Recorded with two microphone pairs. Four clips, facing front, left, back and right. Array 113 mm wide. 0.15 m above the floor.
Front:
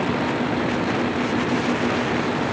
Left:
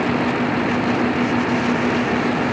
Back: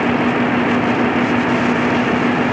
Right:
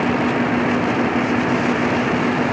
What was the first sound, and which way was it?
Only background noise.